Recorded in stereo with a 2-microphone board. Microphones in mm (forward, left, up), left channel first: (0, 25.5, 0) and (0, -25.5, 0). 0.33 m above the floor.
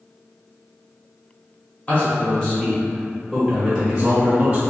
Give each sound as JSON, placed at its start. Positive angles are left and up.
{"t": 1.9, "sound": "a man speaking", "side_deg": 30, "distance_m": 1.3}